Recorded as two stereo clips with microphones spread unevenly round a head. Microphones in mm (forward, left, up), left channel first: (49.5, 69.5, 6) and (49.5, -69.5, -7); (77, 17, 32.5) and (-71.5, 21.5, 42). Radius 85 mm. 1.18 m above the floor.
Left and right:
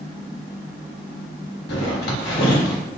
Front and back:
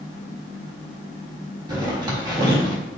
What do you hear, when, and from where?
1.7 s a zipper: 115° left, 1.5 m